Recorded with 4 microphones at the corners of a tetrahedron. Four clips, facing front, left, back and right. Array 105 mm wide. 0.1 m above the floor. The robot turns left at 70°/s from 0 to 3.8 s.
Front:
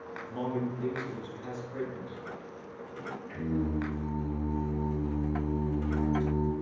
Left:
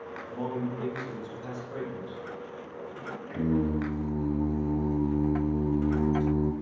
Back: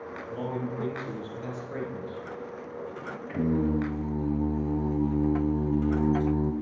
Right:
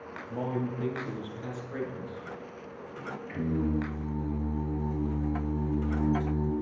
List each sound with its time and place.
0.3 s a man speaking: 80° right, 1.9 m; by 2.3 s 140° left, 1.9 m
3.3 s singing: 175° left, 1.2 m; by 6.5 s 140° left, 1.2 m